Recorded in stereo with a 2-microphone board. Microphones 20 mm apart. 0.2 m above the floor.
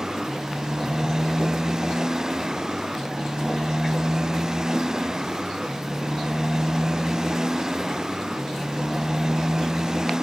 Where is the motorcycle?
30° right (ahead or behind).